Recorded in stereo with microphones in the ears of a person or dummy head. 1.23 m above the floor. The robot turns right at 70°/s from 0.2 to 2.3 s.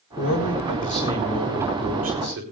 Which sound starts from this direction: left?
A man speaking, at 0.2 s.